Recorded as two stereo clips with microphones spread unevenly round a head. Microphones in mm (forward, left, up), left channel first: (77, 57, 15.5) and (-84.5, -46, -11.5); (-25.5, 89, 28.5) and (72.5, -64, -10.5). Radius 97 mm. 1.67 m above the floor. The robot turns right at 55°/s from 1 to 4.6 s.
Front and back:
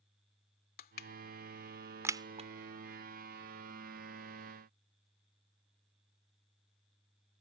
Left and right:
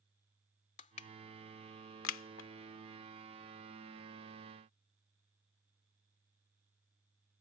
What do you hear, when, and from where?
0.8 s crushing: 75° left; by 2.5 s 155° left